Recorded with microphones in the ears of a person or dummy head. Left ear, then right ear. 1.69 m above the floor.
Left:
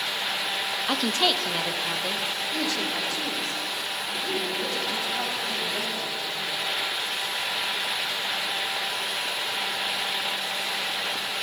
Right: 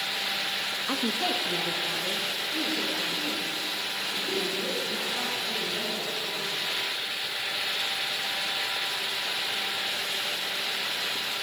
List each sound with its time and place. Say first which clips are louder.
0.9 s a woman speaking: left 6 dB; 25° left (ahead or behind), 0.6 m; by 6.7 s 85° left, 6 m